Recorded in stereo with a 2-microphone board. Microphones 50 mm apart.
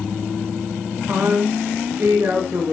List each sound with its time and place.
1.1 s a woman speaking: 40° right (ahead or behind), 2 m